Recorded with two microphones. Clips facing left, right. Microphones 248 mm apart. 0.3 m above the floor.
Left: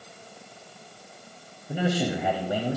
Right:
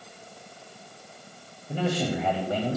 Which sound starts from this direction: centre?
A man speaking, at 1.7 s.